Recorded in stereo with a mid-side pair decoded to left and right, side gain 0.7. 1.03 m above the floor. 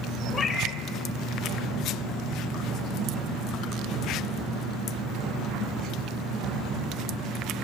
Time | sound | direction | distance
0.3 | a cat meowing | 30° left | 1.1 m